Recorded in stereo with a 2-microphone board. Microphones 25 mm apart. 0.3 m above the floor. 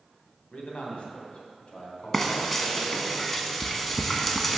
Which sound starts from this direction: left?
A man speaking, at 0.5 s.